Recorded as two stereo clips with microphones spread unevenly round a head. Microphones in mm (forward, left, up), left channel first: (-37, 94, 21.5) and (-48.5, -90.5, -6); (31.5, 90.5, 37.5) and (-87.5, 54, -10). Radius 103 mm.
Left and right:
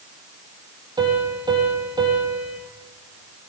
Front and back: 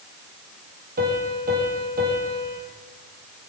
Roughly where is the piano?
Behind.